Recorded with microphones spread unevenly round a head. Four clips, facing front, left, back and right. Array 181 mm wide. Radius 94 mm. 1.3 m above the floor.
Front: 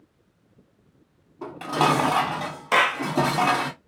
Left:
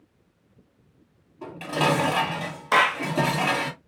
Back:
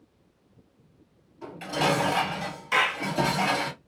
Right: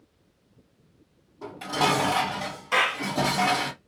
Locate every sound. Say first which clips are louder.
1.4 s dishes clattering: left 1 dB, front 5 dB; 5° left, 2 m
2.7 s a clap: left 5 dB, front 5 dB; 35° left, 0.7 m